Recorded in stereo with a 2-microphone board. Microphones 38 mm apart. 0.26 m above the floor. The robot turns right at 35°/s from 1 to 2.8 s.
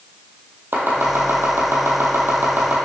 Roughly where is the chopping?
Right.